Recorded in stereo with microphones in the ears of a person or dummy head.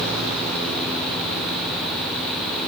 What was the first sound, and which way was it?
Only background noise.